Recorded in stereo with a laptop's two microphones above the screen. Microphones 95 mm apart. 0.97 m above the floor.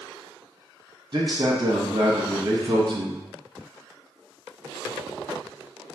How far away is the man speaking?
About 0.8 m.